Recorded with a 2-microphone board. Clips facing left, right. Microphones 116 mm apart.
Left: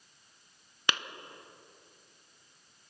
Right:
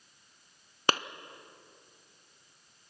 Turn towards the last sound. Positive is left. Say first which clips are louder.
# right 6 dB
turn(degrees=-40)  # may be behind; listen again after turning